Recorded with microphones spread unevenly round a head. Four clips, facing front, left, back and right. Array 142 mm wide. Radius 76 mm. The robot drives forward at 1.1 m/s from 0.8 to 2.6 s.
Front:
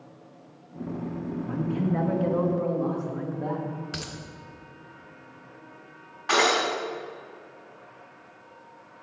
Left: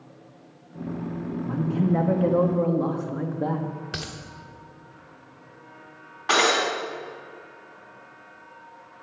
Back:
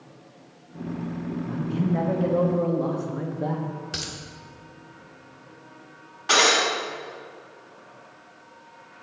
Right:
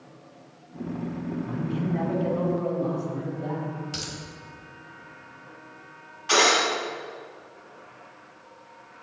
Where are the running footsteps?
I don't hear running footsteps.